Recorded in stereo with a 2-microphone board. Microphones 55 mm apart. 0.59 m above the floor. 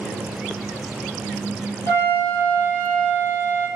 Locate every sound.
1.9 s a flute: 55° left (ahead or behind), 1.9 m